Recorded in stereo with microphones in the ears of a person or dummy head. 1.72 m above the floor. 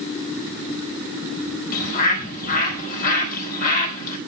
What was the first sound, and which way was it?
A bird, 50° left (ahead or behind).